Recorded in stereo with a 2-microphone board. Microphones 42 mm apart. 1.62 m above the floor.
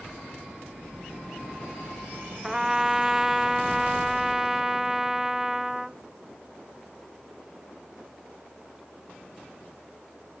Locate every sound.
2.4 s a trumpet: 15° right (ahead or behind), 0.7 m